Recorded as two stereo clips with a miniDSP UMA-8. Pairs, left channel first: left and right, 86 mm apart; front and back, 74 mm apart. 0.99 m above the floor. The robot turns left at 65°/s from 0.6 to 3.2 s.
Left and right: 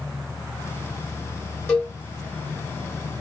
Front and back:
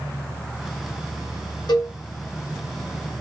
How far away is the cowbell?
About 5 m.